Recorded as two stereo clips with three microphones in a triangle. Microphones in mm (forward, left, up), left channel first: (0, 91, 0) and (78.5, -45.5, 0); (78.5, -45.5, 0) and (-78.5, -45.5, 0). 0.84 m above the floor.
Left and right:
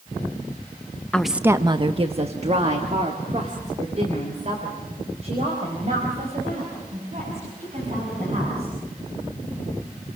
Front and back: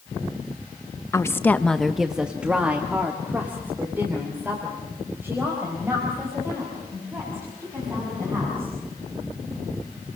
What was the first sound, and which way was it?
A woman speaking, 45° left.